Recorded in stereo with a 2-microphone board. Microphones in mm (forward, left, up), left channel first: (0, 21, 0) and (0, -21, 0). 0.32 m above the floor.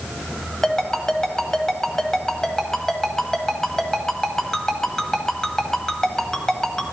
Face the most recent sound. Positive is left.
turn(degrees=15)  # may be behind; listen again after turning